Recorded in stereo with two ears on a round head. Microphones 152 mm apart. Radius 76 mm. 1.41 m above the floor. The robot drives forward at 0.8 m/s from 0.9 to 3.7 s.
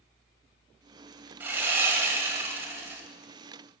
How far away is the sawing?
About 1.4 m.